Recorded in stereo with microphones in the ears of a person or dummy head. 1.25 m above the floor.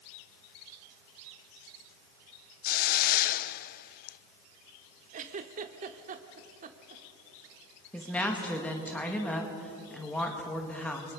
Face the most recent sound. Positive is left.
turn(degrees=5)  # may be behind; listen again after turning